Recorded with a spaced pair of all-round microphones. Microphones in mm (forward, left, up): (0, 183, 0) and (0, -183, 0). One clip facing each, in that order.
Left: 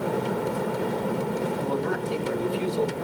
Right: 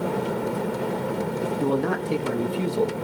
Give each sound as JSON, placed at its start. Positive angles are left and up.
{"t": 1.6, "sound": "a man speaking", "side_deg": -80, "distance_m": 2.0}